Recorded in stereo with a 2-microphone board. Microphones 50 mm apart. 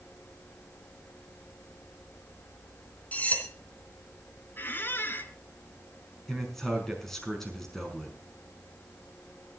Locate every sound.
3.1 s cutlery clinking: 35° left (ahead or behind), 3 m
4.6 s a squeak: 45° left (ahead or behind), 1.4 m
6.3 s a man speaking: 5° left (ahead or behind), 5 m